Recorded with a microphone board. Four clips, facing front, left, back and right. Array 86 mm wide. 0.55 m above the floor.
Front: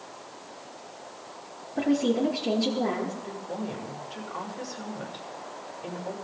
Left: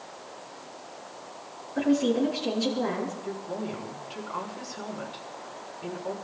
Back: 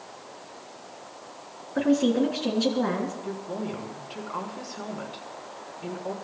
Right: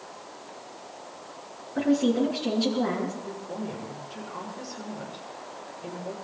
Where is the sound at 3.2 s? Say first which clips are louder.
Left 1 dB, back 2 dB; 155° left, 6.5 m.